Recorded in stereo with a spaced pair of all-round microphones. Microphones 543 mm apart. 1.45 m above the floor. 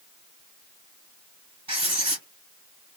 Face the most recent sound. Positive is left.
turn(degrees=-50)  # may be behind; listen again after turning